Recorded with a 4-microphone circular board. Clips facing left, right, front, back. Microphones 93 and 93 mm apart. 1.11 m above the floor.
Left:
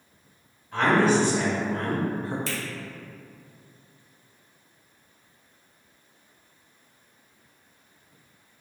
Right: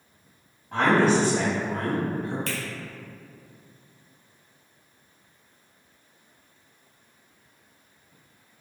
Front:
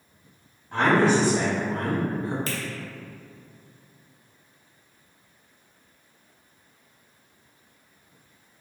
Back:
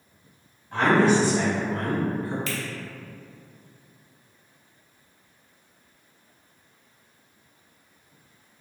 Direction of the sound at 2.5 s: 55° right.